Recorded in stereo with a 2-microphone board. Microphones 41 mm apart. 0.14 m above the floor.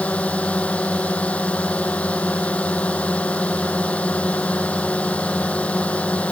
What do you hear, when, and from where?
0.0 s a drone: 30° left (ahead or behind)